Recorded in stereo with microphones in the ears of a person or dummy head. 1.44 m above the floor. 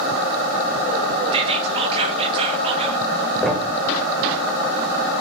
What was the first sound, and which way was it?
Whispering, 30° right (ahead or behind).